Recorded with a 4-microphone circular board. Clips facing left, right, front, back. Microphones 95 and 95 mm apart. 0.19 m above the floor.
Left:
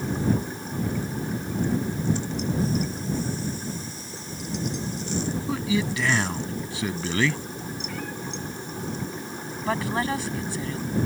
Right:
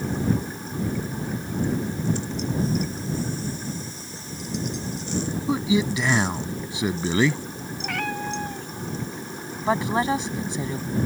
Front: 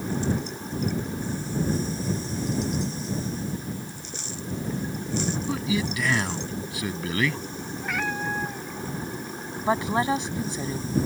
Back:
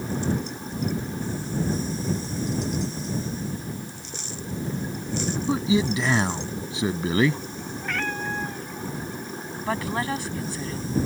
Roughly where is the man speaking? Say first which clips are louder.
Right 5 dB, back 8 dB; behind right.